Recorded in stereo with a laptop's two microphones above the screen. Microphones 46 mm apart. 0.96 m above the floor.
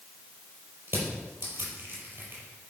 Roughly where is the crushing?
Right.